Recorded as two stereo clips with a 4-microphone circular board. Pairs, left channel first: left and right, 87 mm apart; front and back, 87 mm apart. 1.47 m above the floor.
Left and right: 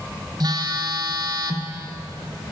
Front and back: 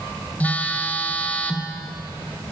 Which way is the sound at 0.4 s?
70° right.